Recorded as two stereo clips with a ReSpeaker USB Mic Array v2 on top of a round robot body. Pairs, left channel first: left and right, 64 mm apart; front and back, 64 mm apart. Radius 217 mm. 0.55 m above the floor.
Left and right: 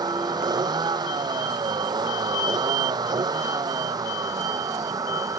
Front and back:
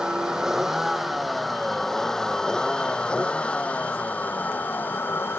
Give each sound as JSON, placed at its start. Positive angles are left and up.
{"t": 0.0, "sound": "a vehicle", "azimuth_deg": -100}